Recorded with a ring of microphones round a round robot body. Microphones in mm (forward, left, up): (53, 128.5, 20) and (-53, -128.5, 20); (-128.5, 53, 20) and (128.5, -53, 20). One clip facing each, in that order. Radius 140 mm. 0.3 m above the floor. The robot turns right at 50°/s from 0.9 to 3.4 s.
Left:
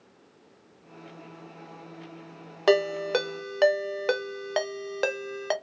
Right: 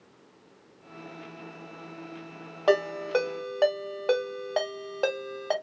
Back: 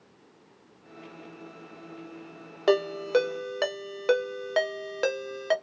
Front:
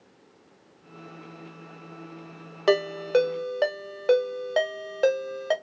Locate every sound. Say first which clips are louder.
2.7 s a ringtone: left 2 dB, front 1 dB; 60° left, 0.6 m; by 5.5 s 95° left, 0.6 m